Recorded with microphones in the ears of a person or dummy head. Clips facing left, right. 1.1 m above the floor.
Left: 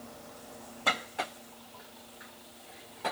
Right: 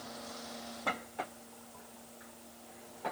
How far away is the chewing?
I don't hear chewing.